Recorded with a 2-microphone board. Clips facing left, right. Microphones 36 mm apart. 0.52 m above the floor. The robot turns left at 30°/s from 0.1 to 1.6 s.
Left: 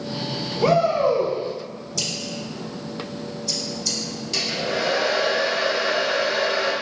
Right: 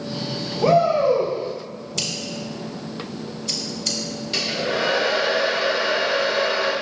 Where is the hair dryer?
20° right (ahead or behind), 1.1 m.